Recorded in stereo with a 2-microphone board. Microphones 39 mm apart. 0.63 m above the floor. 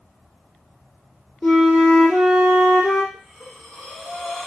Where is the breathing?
20° left (ahead or behind), 1.0 m.